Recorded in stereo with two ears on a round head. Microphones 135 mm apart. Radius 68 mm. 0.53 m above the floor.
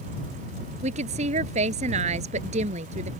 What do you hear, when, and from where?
0.8 s a woman speaking: 50° right (ahead or behind)